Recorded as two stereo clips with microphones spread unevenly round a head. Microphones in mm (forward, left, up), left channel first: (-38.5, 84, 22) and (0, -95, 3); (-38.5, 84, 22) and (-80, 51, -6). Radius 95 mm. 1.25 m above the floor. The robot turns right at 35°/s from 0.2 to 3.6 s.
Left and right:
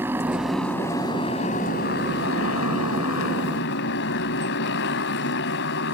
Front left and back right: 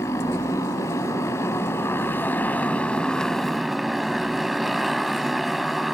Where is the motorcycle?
5° left; by 6.0 s 120° left.